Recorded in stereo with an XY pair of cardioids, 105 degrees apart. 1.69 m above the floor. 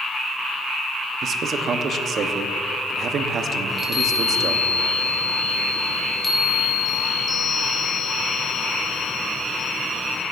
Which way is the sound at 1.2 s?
50° right.